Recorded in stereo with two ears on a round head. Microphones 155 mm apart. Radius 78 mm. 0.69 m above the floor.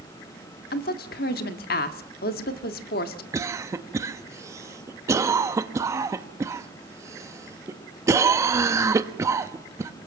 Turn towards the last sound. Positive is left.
turn(degrees=-15)  # may be behind; listen again after turning